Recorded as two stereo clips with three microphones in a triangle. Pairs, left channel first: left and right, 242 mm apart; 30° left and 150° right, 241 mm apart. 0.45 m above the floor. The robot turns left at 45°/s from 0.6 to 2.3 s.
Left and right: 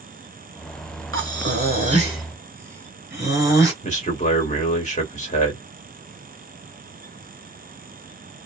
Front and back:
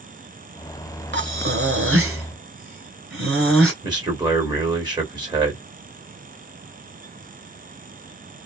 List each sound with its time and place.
1.1 s breathing: 115° right, 1.9 m; by 3.7 s 165° right, 1.9 m
3.8 s a man speaking: 140° left, 2.0 m